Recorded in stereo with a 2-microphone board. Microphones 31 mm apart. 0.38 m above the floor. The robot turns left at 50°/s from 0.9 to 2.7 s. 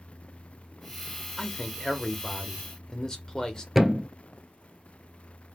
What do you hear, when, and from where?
1.4 s a man speaking: 25° left (ahead or behind), 0.8 m; by 3.6 s 20° left (ahead or behind), 0.8 m
3.8 s a thud: 5° right (ahead or behind), 0.5 m